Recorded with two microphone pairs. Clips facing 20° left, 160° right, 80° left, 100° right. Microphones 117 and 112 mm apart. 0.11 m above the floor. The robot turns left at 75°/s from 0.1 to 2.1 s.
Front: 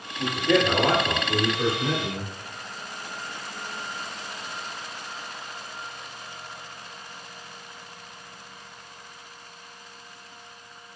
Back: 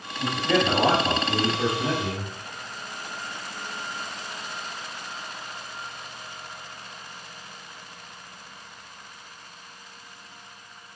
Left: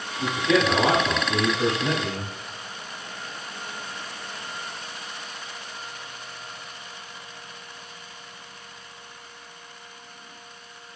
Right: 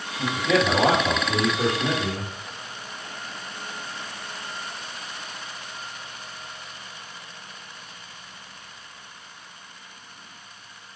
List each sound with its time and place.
0.2 s a man speaking: 40° right, 2.0 m; by 2.3 s 175° left, 2.0 m